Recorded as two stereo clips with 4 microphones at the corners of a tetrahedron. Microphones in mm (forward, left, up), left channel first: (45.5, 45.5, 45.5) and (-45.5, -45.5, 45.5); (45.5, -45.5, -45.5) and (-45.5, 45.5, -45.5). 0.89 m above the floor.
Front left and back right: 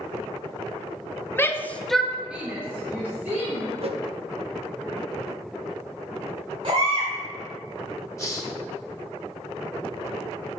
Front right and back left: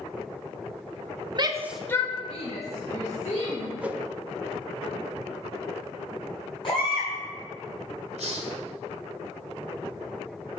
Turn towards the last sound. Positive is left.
turn(degrees=110)